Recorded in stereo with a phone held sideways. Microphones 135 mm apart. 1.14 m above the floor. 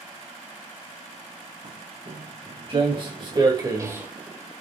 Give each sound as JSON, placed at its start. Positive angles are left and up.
{"t": 1.6, "sound": "footsteps", "side_deg": -55, "distance_m": 4.5}